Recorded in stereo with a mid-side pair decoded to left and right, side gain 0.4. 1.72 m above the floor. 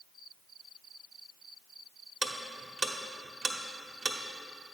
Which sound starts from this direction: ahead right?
Ticking, at 2.2 s.